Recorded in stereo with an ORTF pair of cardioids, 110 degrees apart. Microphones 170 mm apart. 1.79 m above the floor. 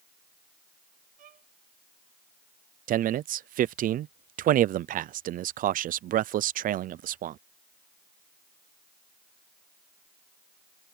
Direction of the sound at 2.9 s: 55° right.